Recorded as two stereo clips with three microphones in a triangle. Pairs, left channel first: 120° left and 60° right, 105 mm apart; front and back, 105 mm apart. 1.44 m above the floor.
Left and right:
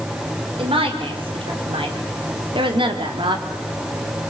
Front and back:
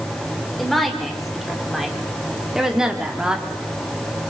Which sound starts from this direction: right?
A woman speaking, at 0.6 s.